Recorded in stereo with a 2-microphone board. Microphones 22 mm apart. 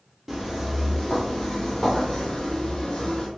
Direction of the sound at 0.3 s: 15° right (ahead or behind).